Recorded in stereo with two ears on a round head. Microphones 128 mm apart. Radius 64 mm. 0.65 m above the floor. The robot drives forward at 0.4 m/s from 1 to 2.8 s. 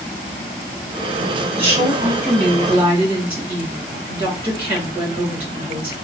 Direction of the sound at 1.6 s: 15° right (ahead or behind).